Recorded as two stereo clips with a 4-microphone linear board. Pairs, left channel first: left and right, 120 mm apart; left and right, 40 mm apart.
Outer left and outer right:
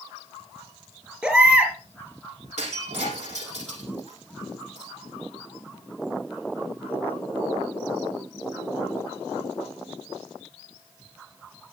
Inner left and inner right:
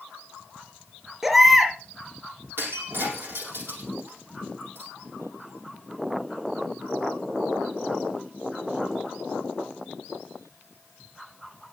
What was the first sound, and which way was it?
A baby crying, 10° right (ahead or behind).